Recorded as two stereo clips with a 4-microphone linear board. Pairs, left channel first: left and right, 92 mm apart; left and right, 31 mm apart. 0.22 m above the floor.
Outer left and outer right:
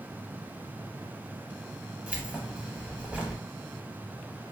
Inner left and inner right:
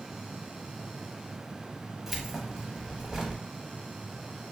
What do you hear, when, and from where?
2.1 s keys jangling: 15° right (ahead or behind), 0.6 m